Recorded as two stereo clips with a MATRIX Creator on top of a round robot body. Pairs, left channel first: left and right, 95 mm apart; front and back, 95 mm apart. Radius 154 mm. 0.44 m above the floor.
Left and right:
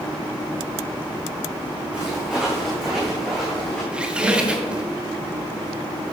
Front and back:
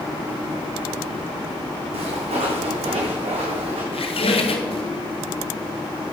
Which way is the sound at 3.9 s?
10° right.